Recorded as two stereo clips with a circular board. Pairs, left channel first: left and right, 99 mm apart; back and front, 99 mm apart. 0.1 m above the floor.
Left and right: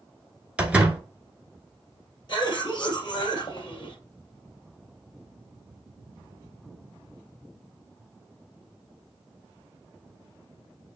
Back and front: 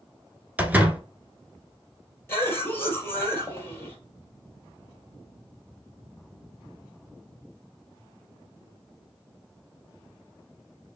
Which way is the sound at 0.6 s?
40° right.